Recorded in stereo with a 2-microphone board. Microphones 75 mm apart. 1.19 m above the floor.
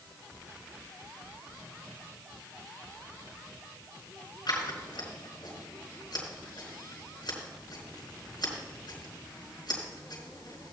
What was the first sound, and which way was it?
Scissors, 80° left.